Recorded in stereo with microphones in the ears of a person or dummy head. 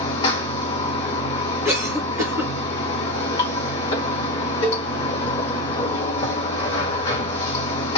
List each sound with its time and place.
0.0 s running water: 30° left (ahead or behind), 1.1 m
1.6 s a cough: 10° right (ahead or behind), 0.7 m
4.6 s a cowbell: 35° left (ahead or behind), 0.7 m